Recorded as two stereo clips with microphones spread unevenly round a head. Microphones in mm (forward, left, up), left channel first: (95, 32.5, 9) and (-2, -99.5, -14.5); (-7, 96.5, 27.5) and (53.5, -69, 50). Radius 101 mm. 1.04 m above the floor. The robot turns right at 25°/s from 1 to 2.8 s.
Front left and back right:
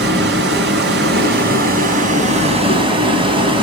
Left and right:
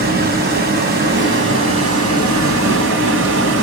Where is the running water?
110° right, 2.5 m; by 3.6 s 65° right, 2.5 m.